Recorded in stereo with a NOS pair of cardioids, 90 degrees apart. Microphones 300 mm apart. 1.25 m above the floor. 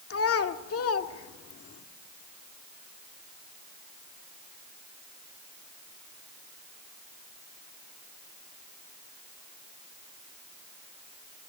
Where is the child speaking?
50° left, 2.0 m.